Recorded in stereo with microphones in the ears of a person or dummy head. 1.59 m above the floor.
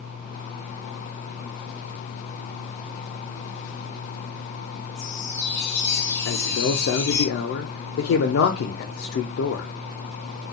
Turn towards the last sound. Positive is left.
turn(degrees=75)  # may be behind; listen again after turning